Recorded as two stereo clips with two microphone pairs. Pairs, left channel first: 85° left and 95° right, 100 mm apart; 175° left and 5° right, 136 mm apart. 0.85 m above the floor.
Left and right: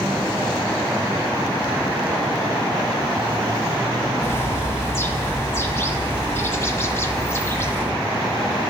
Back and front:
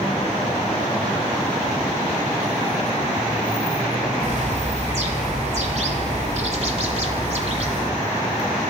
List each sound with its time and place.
4.2 s a bird: 20° left, 1.4 m